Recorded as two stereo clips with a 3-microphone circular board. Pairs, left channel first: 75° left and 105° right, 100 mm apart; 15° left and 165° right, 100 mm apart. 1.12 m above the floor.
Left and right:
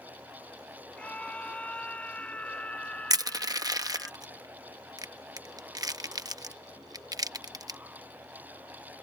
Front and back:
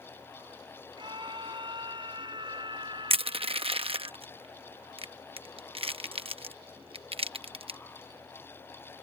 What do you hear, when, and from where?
1.0 s a scream: 155° left
3.1 s crushing: 155° right